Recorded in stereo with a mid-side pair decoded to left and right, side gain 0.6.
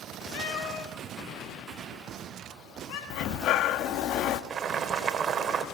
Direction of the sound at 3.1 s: 60° left.